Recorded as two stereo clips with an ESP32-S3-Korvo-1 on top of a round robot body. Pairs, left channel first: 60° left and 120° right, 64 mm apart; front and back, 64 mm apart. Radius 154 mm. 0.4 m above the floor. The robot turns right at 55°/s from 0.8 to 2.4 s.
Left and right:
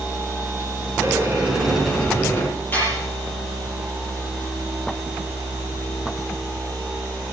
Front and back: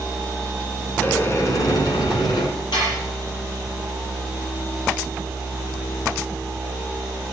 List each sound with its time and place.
1.0 s a sliding door: 70° right, 3.5 m; by 2.5 s 5° left, 3.5 m
2.7 s dishes clattering: straight ahead, 8.5 m